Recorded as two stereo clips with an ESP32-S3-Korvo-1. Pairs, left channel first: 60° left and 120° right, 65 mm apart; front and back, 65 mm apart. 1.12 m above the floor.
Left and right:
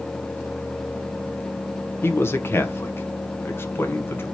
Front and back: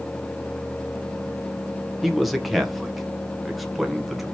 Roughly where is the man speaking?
Left.